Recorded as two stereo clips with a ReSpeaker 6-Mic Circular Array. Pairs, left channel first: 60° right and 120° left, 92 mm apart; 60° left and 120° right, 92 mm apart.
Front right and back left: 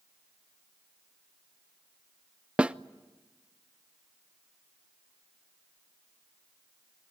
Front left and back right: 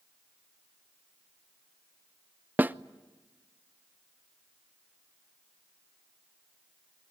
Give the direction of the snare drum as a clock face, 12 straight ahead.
6 o'clock.